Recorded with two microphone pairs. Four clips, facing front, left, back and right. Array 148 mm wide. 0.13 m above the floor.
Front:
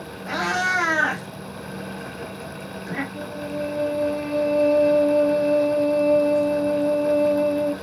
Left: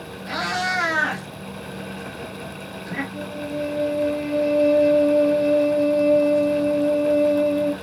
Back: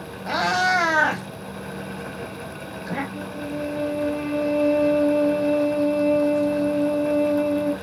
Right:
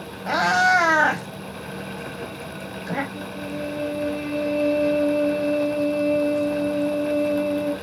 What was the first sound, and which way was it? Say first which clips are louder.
A cat meowing: right 7 dB, back 3 dB; 120° right.